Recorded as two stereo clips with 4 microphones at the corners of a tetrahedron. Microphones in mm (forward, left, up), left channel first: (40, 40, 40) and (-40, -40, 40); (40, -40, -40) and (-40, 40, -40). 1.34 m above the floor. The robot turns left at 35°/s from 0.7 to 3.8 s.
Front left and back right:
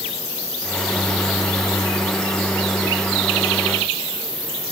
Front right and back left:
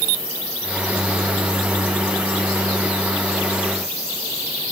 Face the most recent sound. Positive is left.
No sound to turn to.